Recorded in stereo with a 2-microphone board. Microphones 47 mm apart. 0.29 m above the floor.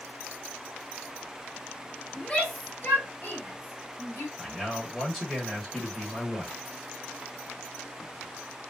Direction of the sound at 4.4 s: Centre (ahead or behind).